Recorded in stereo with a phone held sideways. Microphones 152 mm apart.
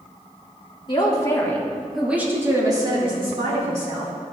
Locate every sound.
0.9 s a man speaking: 35° left (ahead or behind), 1.6 m; by 4.1 s 50° right (ahead or behind), 2.5 m